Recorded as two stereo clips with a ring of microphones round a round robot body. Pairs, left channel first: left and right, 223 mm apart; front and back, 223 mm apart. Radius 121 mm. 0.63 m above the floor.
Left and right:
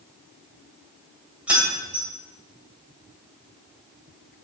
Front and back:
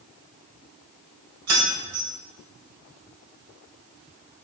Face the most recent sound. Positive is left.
turn(degrees=-175)